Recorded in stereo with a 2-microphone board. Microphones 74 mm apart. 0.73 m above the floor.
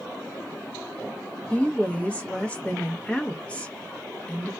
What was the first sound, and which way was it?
A woman speaking, 15° left (ahead or behind).